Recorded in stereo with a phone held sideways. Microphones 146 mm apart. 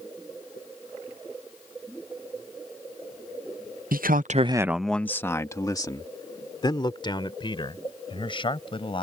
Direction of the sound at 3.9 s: 80° right.